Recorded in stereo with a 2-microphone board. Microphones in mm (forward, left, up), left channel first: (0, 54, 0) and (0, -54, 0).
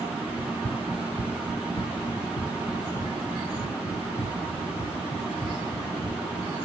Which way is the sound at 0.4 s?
25° left (ahead or behind).